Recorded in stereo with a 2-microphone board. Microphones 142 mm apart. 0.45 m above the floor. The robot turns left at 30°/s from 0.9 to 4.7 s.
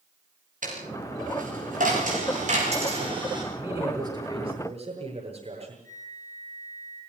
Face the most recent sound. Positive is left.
turn(degrees=-65)  # may be behind; listen again after turning